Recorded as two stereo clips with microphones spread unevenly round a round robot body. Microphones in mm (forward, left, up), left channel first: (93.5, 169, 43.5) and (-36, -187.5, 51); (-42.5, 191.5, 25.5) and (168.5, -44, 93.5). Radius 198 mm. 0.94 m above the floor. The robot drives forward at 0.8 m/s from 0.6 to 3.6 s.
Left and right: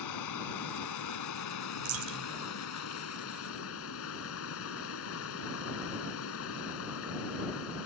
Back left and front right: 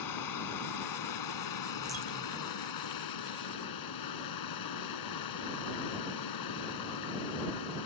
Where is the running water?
115° left; by 7.9 s 125° left.